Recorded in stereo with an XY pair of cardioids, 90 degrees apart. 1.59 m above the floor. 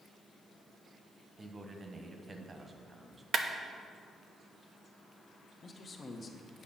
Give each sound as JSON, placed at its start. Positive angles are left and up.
{"t": 1.4, "sound": "a man speaking", "azimuth_deg": -30, "distance_m": 1.3}
{"t": 3.3, "sound": "a clap", "azimuth_deg": -60, "distance_m": 0.9}
{"t": 5.6, "sound": "a man speaking", "azimuth_deg": 45, "distance_m": 1.3}